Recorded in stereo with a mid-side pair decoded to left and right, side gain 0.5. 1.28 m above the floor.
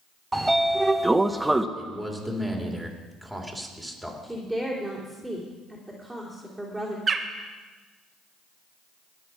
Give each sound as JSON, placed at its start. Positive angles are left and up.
{"t": 0.3, "sound": "a sliding door", "azimuth_deg": -10, "distance_m": 0.8}
{"t": 1.8, "sound": "a man speaking", "azimuth_deg": 0, "distance_m": 3.0}
{"t": 4.2, "sound": "a woman speaking", "azimuth_deg": 0, "distance_m": 3.0}
{"t": 7.1, "sound": "a bird", "azimuth_deg": -30, "distance_m": 1.2}